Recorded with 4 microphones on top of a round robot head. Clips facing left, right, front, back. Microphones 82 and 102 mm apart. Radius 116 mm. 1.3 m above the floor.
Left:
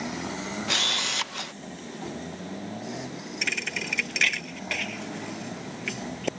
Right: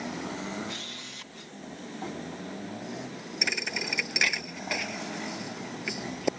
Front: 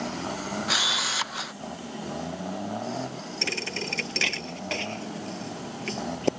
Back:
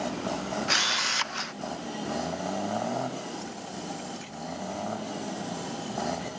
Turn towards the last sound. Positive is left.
turn(degrees=-15)